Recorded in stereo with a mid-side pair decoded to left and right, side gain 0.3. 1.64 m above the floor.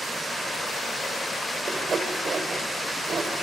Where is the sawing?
60° right, 3.5 m.